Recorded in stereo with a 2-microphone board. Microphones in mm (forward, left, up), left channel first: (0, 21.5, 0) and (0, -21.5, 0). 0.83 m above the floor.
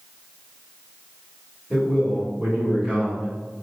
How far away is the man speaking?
About 1.9 m.